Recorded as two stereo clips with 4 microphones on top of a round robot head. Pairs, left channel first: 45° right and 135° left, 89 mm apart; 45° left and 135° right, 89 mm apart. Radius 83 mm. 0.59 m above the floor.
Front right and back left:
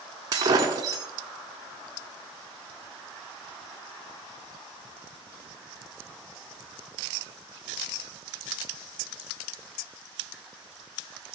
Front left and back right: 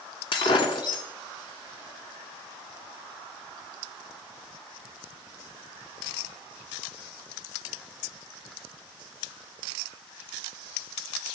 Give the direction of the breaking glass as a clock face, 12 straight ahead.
9 o'clock.